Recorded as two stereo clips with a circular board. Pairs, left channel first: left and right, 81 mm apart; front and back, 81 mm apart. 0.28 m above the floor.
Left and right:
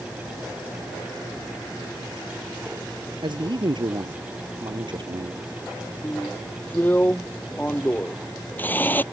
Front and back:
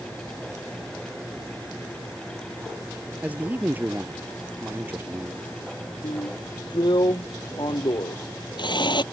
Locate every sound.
3.2 s a man speaking: 110° right; by 5.5 s 115° right
6.0 s a drill: 25° left